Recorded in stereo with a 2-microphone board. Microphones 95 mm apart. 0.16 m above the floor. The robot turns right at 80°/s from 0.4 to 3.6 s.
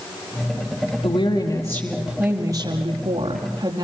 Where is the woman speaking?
100° left, 4.5 m; by 3.8 s 55° right, 4.5 m.